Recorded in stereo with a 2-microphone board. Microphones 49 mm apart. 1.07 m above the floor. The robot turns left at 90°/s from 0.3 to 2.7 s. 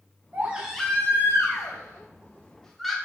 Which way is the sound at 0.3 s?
145° right.